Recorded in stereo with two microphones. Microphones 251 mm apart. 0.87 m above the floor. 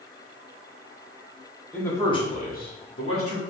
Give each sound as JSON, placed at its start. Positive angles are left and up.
{"t": 1.7, "sound": "a man speaking", "side_deg": 5, "distance_m": 1.5}